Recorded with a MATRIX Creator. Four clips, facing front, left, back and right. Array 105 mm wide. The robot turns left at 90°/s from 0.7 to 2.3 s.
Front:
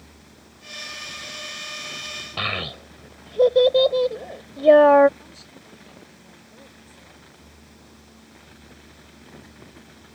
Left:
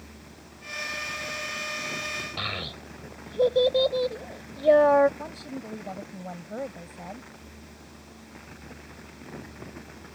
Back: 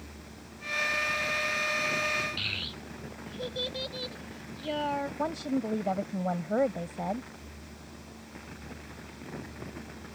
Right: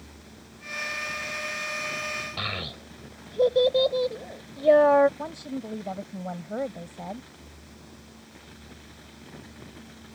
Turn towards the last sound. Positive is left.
turn(degrees=-165)